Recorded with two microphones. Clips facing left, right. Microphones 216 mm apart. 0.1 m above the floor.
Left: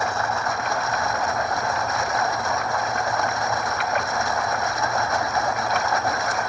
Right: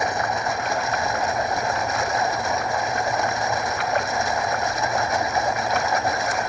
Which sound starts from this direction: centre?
Running water, at 0.0 s.